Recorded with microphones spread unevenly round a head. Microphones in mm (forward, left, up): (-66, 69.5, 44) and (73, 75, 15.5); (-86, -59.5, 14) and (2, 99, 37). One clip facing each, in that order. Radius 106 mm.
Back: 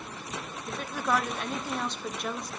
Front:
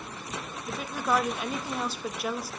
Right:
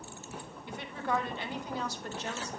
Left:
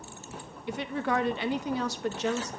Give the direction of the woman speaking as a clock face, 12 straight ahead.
9 o'clock.